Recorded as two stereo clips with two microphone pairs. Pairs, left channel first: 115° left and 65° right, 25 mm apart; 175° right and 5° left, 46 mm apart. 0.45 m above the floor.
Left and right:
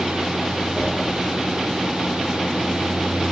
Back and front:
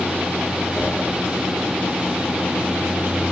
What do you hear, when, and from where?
0.8 s a whoosh: 105° right, 5 m